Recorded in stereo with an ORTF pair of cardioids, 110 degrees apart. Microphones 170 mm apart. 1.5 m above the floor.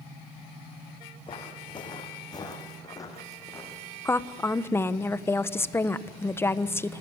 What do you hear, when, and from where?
1.3 s footsteps: 30° left, 6 m; by 3.9 s 15° left, 6 m
4.0 s a woman speaking: 15° left, 1.3 m